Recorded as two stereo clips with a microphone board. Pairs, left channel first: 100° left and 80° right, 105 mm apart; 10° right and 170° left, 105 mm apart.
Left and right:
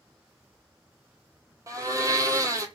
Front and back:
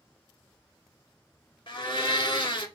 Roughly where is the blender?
Ahead right.